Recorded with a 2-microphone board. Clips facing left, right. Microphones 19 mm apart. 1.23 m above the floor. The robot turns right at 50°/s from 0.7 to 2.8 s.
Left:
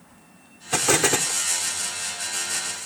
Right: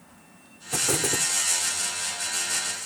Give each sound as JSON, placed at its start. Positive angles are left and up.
{"t": 0.7, "sound": "an explosion", "azimuth_deg": 45}